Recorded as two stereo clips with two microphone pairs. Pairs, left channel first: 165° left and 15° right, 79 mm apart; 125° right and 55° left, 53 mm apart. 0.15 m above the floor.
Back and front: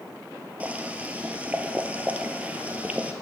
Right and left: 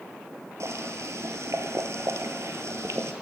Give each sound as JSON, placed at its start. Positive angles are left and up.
{"t": 0.6, "sound": "boiling", "azimuth_deg": 55, "distance_m": 0.9}